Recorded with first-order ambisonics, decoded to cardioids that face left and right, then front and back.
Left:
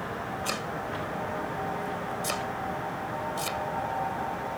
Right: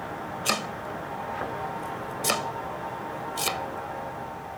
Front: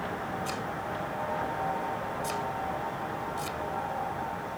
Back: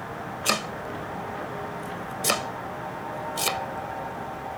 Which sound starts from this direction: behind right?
Chopping, at 0.5 s.